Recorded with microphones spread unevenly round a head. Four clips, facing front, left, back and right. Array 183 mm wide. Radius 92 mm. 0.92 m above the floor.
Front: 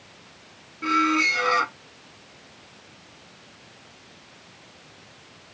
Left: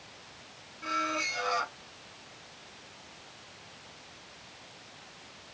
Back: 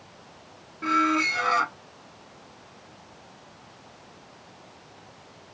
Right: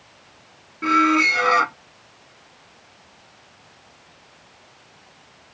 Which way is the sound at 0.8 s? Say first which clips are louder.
Right 15 dB, front 1 dB; 80° right.